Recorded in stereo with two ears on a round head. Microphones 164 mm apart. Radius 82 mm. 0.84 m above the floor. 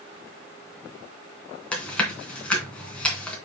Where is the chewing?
5° left (ahead or behind), 3 m.